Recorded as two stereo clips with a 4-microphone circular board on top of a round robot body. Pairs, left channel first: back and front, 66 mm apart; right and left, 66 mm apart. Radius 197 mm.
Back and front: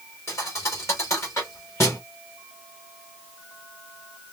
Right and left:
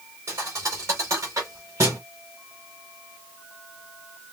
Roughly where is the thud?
Behind left.